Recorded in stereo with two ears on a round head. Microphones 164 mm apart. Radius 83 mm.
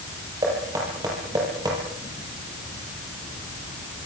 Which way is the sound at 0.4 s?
20° right (ahead or behind).